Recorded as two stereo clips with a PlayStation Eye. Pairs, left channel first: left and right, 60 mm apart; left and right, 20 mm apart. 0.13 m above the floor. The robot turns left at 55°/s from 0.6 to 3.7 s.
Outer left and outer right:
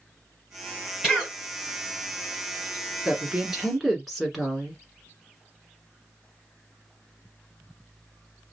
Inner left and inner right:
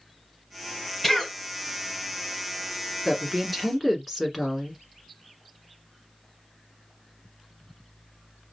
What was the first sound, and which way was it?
A cough, 15° right (ahead or behind).